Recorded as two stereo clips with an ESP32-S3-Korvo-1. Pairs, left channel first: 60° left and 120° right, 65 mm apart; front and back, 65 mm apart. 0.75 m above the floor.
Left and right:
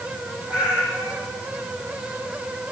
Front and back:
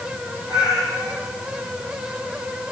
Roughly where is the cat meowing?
Behind.